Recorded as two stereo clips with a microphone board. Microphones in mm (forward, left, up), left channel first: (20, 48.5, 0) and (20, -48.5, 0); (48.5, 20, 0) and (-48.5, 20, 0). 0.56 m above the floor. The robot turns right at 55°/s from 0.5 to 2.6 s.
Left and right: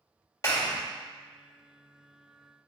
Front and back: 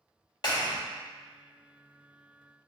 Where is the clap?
35° left, 1.2 m; by 0.8 s 55° left, 1.2 m.